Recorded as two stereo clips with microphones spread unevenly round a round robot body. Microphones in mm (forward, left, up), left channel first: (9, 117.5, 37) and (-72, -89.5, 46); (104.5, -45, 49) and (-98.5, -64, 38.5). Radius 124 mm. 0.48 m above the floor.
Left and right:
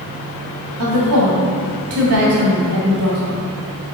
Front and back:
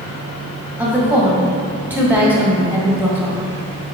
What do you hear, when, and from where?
0.8 s a woman speaking: 95° right, 1.9 m